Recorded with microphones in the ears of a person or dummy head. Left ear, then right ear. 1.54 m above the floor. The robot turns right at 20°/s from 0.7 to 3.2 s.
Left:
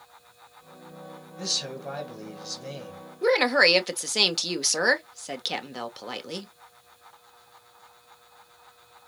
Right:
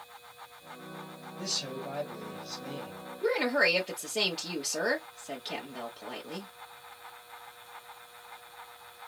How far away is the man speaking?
About 1.3 m.